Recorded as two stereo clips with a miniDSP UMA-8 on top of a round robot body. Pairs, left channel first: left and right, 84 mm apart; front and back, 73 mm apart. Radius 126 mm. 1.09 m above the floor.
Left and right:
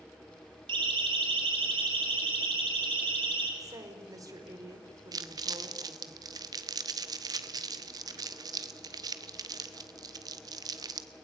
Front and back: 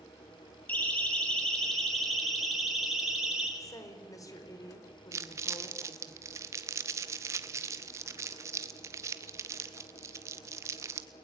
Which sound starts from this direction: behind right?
Crumpling, at 5.1 s.